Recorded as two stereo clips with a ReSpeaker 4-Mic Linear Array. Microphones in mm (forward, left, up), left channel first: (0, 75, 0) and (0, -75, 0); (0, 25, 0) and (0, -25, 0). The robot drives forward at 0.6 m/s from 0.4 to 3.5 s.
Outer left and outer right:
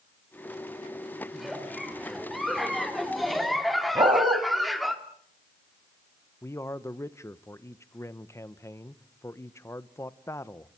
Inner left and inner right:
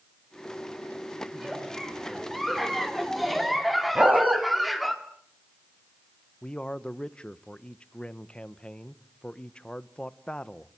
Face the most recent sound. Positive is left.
turn(degrees=20)  # may be behind; listen again after turning